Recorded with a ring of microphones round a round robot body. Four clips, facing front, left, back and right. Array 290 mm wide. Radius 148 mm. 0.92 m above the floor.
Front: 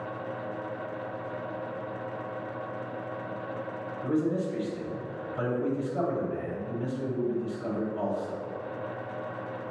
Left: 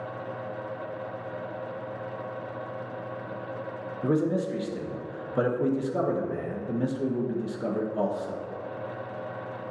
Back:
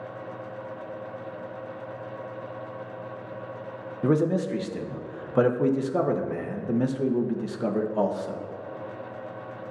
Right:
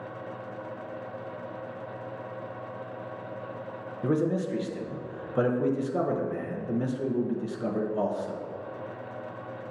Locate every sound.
4.0 s a man speaking: 175° left, 0.9 m